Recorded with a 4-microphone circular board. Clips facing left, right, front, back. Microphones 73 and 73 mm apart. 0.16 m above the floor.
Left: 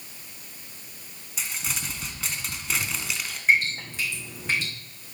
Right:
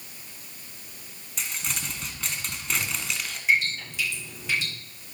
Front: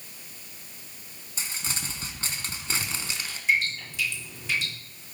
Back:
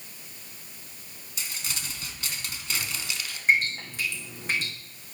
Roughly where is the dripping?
Behind left.